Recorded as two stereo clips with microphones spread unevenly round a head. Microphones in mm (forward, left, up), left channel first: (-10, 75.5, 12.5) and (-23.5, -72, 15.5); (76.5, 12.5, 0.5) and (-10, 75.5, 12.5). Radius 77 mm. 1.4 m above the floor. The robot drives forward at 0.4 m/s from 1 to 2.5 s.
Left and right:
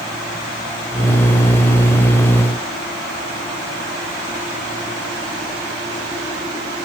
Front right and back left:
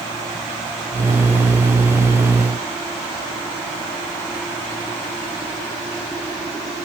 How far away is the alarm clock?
I don't hear an alarm clock.